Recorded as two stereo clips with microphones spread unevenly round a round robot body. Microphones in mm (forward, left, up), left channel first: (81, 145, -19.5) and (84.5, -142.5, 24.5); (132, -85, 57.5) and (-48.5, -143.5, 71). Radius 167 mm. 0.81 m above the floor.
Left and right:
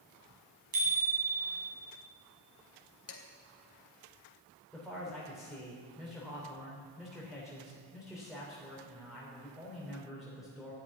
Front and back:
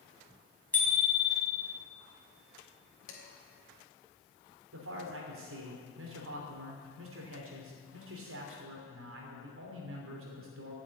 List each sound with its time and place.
0.7 s a bicycle bell: 65° right, 5 m
3.1 s dishes clattering: 50° left, 2.5 m
4.7 s a man speaking: straight behind, 3 m